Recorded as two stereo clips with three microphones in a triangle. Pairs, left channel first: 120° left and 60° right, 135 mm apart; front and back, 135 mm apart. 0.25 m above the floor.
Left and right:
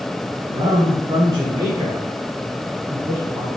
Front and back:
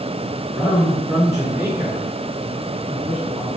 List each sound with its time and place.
0.5 s a man speaking: 105° right, 3 m; by 3.5 s 135° right, 4.5 m